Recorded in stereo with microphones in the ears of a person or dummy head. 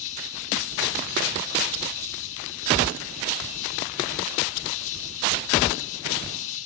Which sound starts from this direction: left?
An insect, at 0.0 s.